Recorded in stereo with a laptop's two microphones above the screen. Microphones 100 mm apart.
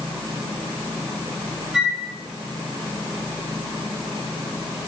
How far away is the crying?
No crying in this recording.